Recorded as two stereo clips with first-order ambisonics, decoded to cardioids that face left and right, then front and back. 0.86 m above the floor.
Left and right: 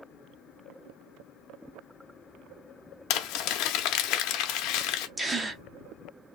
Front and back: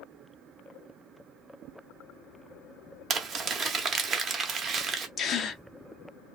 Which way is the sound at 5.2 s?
20° right.